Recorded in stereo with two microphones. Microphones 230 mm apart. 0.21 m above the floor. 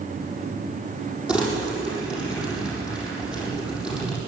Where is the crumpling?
5° right (ahead or behind), 8 m.